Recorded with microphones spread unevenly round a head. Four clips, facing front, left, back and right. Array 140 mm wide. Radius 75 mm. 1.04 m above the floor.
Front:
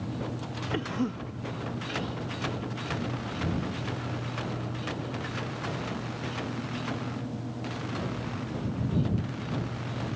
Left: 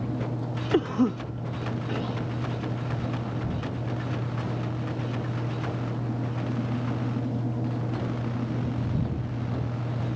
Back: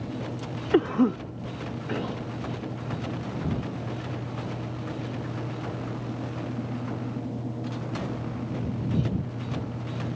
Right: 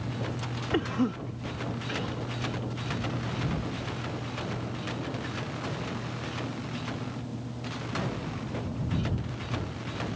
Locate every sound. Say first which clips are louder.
0.7 s a cough: left 5 dB, back 10 dB; 165° left